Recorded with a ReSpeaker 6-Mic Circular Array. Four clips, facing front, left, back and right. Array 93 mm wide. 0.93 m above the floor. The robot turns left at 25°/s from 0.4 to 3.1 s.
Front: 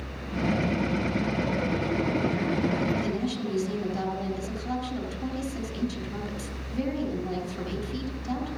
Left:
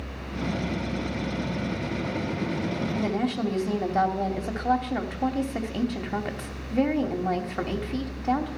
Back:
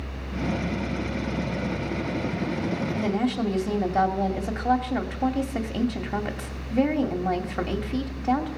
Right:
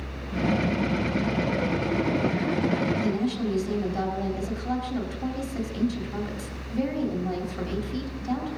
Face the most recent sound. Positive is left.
turn(degrees=145)